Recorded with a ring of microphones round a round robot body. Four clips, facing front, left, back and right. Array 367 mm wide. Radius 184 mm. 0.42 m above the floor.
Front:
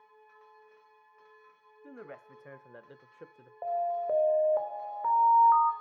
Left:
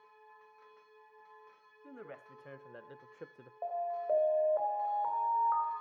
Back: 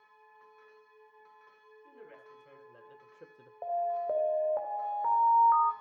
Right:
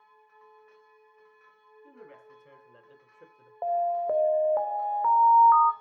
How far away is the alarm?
About 2 m.